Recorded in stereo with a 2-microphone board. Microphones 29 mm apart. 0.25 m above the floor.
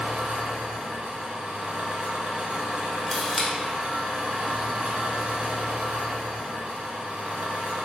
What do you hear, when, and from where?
0.0 s an engine running: 55° right (ahead or behind), 0.9 m
3.1 s a camera shutter: centre (ahead or behind), 0.9 m